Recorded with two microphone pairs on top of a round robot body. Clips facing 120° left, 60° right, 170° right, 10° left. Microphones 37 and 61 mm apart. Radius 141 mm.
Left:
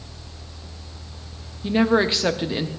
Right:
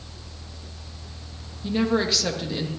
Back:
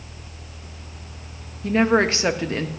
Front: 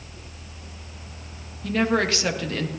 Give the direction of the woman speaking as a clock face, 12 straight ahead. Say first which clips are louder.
Left 4 dB, back 4 dB; 7 o'clock.